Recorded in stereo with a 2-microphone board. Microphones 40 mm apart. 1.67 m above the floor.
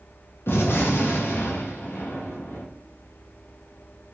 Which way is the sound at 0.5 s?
60° left (ahead or behind).